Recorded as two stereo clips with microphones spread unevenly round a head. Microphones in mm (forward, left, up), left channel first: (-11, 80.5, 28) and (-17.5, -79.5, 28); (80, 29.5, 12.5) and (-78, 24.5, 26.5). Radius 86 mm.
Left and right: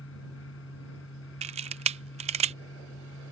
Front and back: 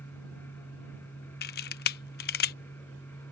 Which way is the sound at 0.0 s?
80° left.